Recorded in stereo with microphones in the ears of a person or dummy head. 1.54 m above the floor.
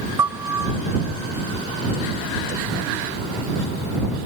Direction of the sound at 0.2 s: 15° right (ahead or behind).